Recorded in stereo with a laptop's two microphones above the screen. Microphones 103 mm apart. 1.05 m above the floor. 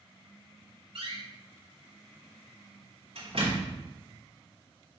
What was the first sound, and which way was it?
A door slam, 65° right (ahead or behind).